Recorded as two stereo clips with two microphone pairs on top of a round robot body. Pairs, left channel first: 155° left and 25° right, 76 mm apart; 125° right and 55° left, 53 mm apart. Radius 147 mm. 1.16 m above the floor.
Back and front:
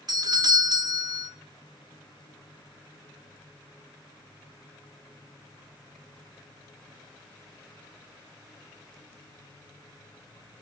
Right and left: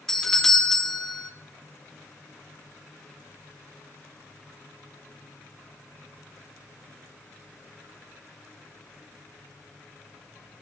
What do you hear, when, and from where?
0.1 s a doorbell: 40° right, 1.2 m